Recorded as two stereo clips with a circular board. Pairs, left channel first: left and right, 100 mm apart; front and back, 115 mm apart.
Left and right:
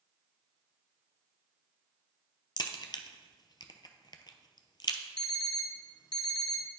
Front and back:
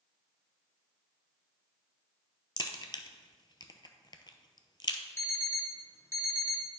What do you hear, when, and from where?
2.6 s a crack: 50° left, 0.7 m
5.2 s an alarm clock: 60° left, 0.7 m